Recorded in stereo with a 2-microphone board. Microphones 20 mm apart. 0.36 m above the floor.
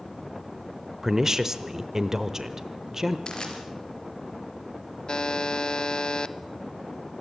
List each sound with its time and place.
1.0 s a woman speaking: 25° right (ahead or behind), 0.9 m
3.3 s crushing: 45° left (ahead or behind), 4 m
5.1 s a buzzer: 35° left (ahead or behind), 0.7 m